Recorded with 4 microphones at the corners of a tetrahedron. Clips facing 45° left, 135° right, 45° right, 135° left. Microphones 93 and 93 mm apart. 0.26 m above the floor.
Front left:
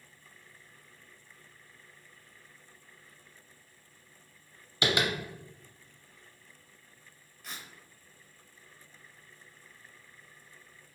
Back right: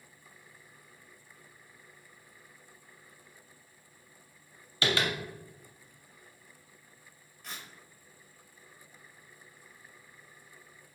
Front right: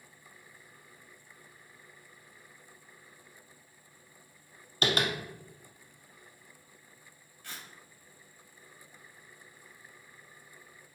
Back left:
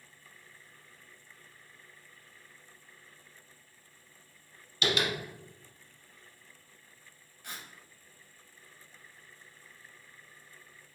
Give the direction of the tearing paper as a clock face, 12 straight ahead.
8 o'clock.